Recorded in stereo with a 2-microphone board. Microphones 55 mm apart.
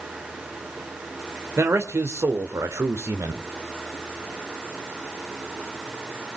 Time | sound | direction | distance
1.6 | a man speaking | 50° right (ahead or behind) | 2.5 m